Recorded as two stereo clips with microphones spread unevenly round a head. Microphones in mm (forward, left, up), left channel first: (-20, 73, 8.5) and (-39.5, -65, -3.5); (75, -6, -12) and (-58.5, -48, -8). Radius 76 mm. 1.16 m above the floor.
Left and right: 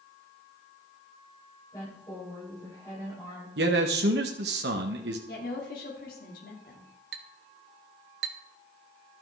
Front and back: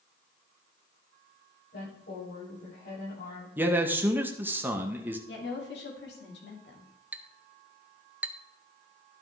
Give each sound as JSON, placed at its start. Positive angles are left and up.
{"t": 1.7, "sound": "a woman speaking", "azimuth_deg": 10, "distance_m": 6.5}
{"t": 3.6, "sound": "a man speaking", "azimuth_deg": -85, "distance_m": 0.9}
{"t": 5.3, "sound": "a woman speaking", "azimuth_deg": 45, "distance_m": 2.5}
{"t": 7.1, "sound": "a clink", "azimuth_deg": -85, "distance_m": 0.8}